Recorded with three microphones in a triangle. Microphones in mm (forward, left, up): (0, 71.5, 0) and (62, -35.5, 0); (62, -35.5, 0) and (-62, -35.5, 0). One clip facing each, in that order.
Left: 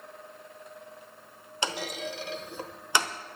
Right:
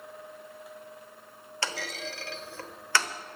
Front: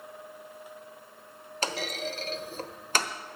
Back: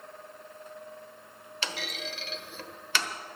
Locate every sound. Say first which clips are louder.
1.6 s a clunk: left 3 dB, front 5 dB; 45° left, 0.9 m